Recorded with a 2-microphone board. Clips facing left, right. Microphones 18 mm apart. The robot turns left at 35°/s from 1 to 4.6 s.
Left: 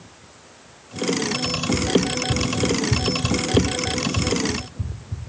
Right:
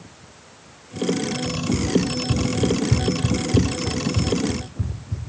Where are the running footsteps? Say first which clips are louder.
Left 1 dB; 45° left (ahead or behind), 2.0 m; by 5.2 s 25° right (ahead or behind), 2 m.